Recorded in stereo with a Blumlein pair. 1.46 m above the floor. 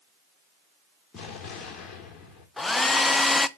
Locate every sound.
1.1 s an explosion: 25° left, 3.5 m
2.6 s a hair dryer: 10° left, 0.6 m